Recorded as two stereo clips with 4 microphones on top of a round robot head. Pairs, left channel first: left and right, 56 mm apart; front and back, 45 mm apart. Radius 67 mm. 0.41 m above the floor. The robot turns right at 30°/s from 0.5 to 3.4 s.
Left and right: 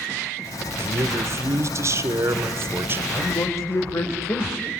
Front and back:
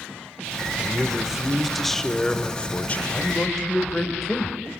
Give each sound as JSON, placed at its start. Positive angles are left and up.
{"t": 0.8, "sound": "a man speaking", "azimuth_deg": -120, "distance_m": 1.4}
{"t": 3.1, "sound": "a man speaking", "azimuth_deg": 70, "distance_m": 2.5}